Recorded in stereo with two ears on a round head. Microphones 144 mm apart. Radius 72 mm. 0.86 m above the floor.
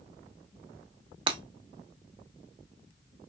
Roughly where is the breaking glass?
Right.